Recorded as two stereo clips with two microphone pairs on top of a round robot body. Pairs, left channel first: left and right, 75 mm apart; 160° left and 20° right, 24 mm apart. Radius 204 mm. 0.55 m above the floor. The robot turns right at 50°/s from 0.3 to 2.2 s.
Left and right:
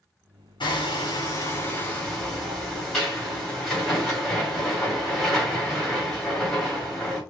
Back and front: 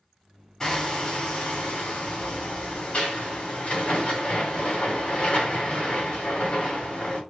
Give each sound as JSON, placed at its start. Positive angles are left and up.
{"t": 0.6, "sound": "hammering", "azimuth_deg": 100, "distance_m": 2.0}